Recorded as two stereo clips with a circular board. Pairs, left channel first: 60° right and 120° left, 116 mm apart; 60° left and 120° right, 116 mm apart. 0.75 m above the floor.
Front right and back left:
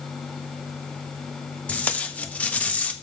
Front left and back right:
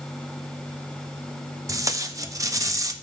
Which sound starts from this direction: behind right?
Tape being pulled, at 1.7 s.